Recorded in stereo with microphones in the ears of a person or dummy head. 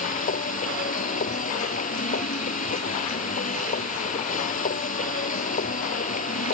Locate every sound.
0.0 s a machine running: 50° left (ahead or behind)